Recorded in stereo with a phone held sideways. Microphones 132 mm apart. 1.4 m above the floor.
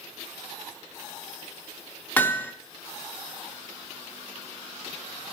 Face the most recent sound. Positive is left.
turn(degrees=15)  # may be behind; listen again after turning